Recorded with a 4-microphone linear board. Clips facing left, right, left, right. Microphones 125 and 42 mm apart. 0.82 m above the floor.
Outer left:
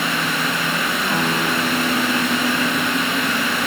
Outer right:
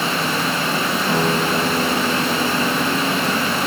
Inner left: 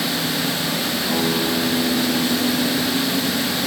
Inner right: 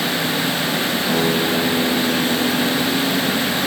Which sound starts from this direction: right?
A guitar, at 1.1 s.